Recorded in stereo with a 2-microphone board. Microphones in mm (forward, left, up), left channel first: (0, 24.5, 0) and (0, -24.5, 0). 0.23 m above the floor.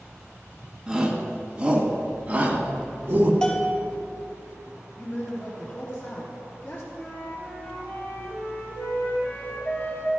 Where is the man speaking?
45° left (ahead or behind), 3 m.